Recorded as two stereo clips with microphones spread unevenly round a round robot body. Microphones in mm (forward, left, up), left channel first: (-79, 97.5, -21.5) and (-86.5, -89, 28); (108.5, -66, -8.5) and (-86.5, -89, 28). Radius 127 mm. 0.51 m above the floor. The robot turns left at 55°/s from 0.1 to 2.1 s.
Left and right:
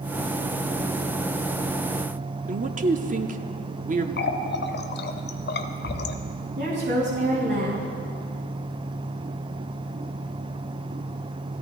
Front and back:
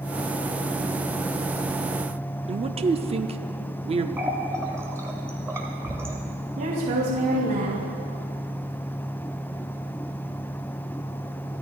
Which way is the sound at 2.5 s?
125° right.